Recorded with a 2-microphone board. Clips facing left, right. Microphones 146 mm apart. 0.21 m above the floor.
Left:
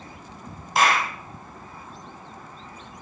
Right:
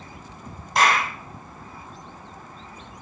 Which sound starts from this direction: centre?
A clap, at 0.8 s.